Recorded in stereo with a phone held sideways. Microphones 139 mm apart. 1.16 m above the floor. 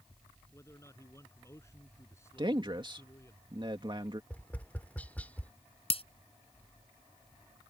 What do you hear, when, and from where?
0.5 s a man speaking: 20° left (ahead or behind)
2.4 s a man speaking: 35° right (ahead or behind)
4.3 s tapping: 10° left (ahead or behind)
5.9 s breaking glass: 45° left (ahead or behind)